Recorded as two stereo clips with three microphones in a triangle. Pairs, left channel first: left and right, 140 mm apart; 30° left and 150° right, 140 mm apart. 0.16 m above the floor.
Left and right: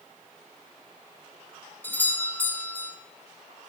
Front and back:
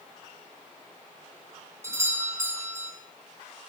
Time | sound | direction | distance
1.8 | a doorbell | 155° left | 1.7 m